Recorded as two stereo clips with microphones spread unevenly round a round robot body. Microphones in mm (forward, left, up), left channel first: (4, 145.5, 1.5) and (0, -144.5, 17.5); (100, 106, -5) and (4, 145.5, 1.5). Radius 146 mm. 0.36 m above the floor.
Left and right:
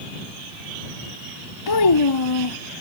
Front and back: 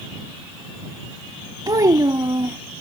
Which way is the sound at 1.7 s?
105° left.